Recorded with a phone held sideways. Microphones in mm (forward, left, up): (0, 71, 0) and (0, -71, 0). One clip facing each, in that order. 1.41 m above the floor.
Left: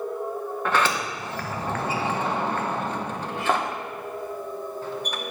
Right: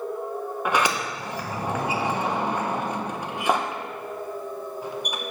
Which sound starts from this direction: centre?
A sliding door, at 0.7 s.